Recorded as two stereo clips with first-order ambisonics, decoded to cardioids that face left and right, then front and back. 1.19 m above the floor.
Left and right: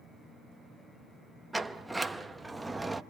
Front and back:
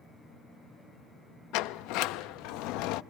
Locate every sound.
1.5 s a sliding door: 10° right, 0.7 m